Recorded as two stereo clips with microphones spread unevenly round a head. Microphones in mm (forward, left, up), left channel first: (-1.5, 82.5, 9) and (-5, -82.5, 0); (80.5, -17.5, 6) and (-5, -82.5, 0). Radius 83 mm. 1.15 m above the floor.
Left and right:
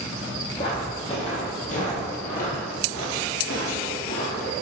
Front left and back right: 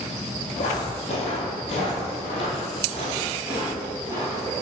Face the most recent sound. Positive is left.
turn(degrees=110)